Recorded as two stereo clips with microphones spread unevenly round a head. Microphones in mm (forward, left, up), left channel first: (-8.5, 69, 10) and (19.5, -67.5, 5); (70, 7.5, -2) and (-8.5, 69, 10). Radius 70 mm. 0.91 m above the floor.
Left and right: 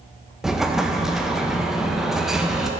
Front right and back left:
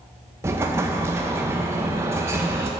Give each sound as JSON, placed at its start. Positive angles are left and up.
{"t": 0.4, "sound": "an explosion", "azimuth_deg": -160, "distance_m": 0.6}